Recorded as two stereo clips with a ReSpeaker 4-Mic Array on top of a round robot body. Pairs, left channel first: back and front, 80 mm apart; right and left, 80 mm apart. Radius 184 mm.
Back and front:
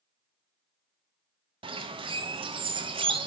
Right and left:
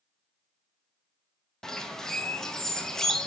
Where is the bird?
5° right, 0.6 m.